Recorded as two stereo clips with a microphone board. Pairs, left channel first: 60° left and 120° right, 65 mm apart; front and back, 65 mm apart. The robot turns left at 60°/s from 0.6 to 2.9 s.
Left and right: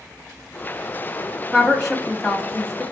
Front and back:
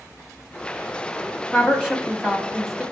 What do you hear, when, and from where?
1.5 s a woman speaking: straight behind, 1.1 m; by 2.8 s 100° left, 1.1 m